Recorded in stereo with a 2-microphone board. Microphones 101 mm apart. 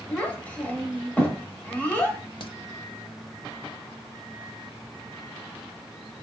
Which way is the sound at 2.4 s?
60° left (ahead or behind).